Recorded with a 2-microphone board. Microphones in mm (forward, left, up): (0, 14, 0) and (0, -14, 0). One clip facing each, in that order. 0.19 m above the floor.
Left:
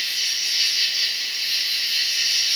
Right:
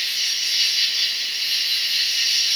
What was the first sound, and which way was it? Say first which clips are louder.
An insect: right 1 dB; 5° left (ahead or behind).